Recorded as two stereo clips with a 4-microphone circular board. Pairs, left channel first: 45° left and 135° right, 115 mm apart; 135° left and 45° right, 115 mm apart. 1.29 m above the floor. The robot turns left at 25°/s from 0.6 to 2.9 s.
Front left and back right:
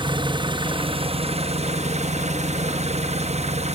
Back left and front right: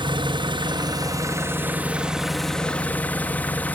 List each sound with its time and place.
0.0 s an engine running: 90° right, 1.1 m; by 3.8 s 150° right, 1.1 m